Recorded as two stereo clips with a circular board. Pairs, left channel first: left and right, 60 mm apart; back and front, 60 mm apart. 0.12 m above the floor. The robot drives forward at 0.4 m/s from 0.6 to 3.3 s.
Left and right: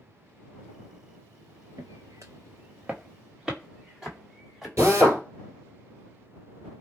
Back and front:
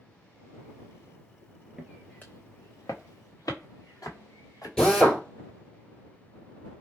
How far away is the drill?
About 1.8 m.